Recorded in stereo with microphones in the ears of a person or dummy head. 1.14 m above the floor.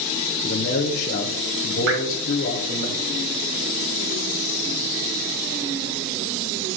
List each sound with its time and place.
0.4 s a man speaking: 45° left (ahead or behind), 1.2 m
1.9 s dripping: 65° right (ahead or behind), 1.8 m